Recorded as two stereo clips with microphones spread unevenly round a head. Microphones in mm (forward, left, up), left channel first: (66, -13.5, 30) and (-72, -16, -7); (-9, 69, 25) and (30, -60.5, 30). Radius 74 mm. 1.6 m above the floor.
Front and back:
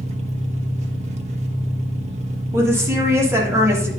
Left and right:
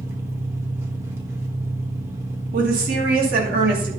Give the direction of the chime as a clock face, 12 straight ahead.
No chime in this recording.